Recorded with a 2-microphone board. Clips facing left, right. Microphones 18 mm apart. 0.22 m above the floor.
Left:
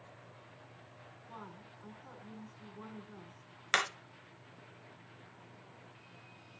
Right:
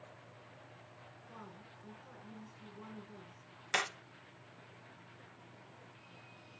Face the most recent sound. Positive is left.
turn(degrees=40)  # may be behind; listen again after turning